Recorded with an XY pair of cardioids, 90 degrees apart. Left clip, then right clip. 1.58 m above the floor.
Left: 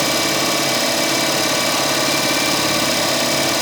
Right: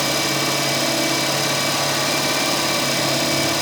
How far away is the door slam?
No door slam in this recording.